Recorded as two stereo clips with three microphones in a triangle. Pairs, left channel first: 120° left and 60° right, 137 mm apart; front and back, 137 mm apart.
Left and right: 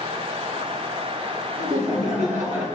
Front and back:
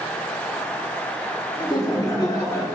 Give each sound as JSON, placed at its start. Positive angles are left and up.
{"t": 1.6, "sound": "laughter", "azimuth_deg": -50, "distance_m": 2.5}